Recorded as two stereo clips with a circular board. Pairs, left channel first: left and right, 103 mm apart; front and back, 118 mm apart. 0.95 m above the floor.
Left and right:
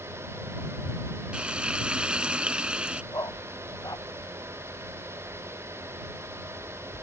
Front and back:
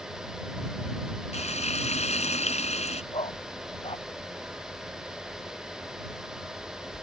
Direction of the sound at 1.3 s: 10° right.